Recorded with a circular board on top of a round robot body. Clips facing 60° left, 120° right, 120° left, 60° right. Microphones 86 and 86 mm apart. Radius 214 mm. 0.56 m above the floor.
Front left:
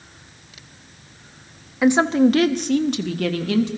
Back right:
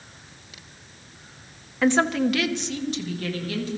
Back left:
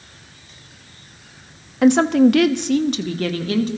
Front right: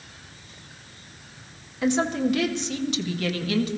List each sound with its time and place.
1.8 s a woman speaking: 140° left, 1.0 m; by 3.7 s 65° left, 1.6 m